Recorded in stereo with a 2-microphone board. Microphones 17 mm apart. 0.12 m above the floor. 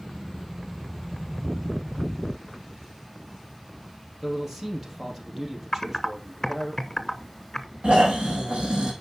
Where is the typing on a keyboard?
20° left (ahead or behind), 0.8 m.